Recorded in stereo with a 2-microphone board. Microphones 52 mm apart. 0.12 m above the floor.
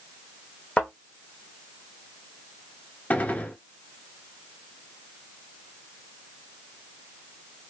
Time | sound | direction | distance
0.8 | a thud | 25° left (ahead or behind) | 1.3 m
3.1 | a gunshot | 35° left (ahead or behind) | 0.6 m